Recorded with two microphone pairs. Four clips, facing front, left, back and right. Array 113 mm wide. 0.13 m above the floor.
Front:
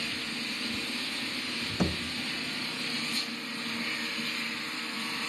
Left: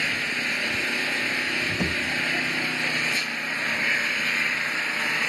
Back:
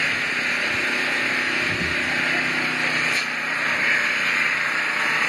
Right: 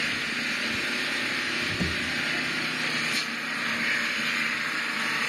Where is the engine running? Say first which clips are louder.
Left 2 dB, back 12 dB; 160° left, 1.2 m.